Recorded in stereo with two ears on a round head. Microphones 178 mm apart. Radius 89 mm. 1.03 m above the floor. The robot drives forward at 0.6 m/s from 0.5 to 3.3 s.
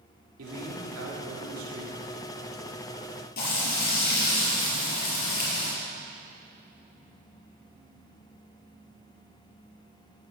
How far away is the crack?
I don't hear a crack.